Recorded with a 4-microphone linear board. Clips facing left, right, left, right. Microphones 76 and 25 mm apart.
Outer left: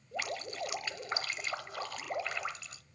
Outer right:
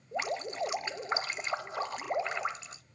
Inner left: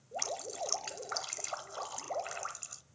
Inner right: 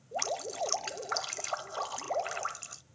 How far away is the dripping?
About 0.7 m.